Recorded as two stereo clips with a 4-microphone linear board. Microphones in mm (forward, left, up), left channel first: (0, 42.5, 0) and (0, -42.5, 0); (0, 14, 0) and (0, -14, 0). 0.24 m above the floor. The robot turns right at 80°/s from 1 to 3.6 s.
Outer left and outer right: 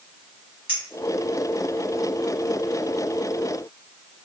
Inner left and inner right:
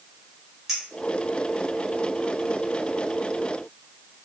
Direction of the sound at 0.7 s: 15° right (ahead or behind).